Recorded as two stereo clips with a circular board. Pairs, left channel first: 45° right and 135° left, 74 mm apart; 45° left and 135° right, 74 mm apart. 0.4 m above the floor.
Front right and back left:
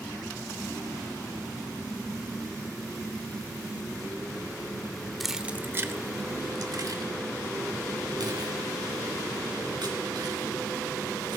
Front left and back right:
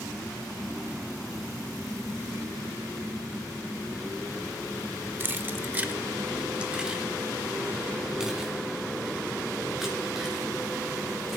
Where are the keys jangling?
130° right, 0.7 m; by 11.4 s 140° left, 5 m.